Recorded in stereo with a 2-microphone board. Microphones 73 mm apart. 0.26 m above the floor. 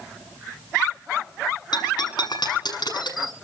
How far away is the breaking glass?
About 6.5 m.